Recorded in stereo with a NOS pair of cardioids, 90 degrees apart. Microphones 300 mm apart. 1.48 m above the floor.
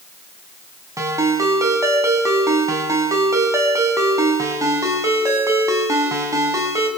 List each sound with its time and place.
1.0 s a ringtone: 10° right, 5.5 m